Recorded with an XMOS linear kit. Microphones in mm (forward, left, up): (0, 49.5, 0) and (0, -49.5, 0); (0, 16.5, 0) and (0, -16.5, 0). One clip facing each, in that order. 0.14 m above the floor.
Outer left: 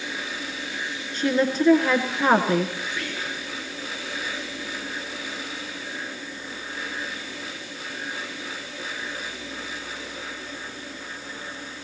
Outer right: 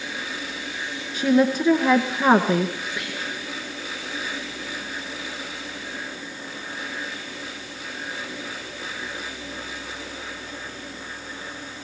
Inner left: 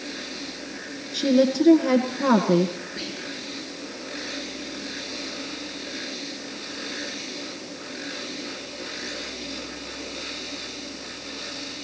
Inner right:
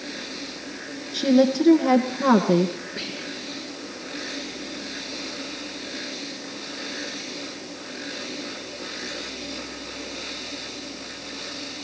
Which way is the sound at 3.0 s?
15° right (ahead or behind).